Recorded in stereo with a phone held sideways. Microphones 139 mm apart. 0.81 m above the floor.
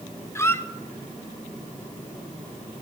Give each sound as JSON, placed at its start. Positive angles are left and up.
{"t": 0.3, "sound": "a squeak", "side_deg": 20, "distance_m": 0.8}